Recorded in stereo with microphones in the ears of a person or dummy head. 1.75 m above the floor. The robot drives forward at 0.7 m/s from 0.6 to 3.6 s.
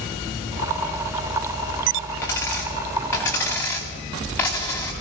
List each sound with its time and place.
2.2 s a dropped coin: 15° left (ahead or behind), 3 m; by 4.9 s 10° left (ahead or behind), 4 m